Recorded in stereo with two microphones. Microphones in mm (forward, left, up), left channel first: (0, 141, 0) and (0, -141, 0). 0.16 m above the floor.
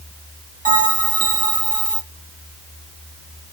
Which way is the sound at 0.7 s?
30° right (ahead or behind).